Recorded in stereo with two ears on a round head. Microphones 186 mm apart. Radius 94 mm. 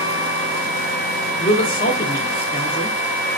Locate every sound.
1.4 s a man speaking: 45° left (ahead or behind), 1.7 m